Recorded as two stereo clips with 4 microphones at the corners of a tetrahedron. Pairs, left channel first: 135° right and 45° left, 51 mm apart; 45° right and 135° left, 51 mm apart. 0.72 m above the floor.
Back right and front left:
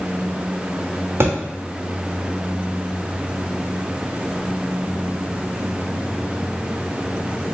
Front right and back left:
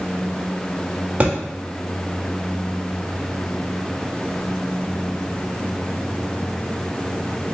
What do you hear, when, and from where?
1.2 s a thud: 75° left, 1.0 m